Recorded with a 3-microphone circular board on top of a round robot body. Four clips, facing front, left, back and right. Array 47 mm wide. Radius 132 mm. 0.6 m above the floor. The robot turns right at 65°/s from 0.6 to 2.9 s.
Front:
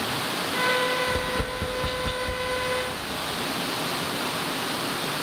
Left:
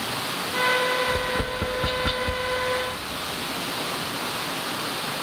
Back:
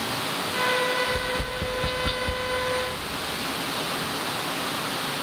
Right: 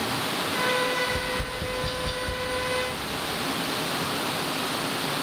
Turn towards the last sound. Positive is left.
turn(degrees=160)